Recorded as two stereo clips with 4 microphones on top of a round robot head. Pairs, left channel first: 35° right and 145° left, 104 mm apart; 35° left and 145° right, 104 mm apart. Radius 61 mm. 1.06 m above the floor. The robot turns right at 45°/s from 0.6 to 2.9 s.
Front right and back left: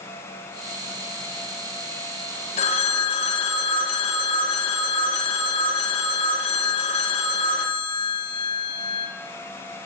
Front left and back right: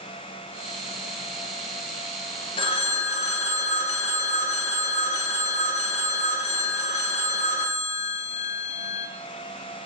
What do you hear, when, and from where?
2.6 s a phone ringing: 10° right, 0.5 m; by 9.1 s 5° left, 0.5 m